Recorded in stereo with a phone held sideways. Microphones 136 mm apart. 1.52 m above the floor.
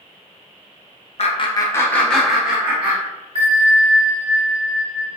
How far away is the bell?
About 1.0 m.